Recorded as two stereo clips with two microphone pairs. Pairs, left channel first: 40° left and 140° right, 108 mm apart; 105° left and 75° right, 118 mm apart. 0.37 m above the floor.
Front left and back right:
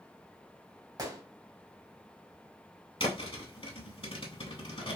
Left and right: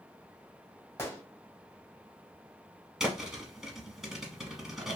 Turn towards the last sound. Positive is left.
turn(degrees=10)